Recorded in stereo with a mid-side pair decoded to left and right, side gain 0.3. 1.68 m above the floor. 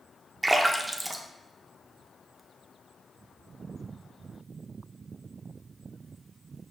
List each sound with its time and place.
0.4 s a splash: 25° right, 0.6 m